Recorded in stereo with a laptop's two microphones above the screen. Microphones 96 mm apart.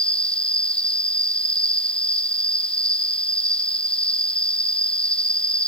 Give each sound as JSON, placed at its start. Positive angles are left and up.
{"t": 0.0, "sound": "an insect", "side_deg": 10}